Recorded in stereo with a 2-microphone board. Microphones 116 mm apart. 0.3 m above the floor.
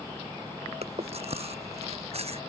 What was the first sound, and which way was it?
Chewing, 60° right (ahead or behind).